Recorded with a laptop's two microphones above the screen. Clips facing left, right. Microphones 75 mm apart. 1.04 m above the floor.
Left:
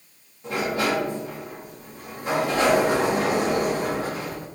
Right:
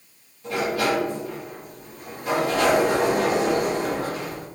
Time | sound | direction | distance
0.4 | a sliding door | 30° left (ahead or behind) | 1.6 m